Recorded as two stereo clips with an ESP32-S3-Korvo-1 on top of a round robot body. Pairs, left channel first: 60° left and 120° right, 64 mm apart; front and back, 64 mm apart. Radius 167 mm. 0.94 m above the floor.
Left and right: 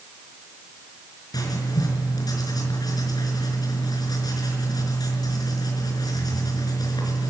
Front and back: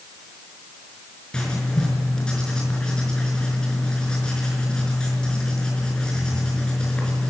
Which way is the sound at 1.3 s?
75° left.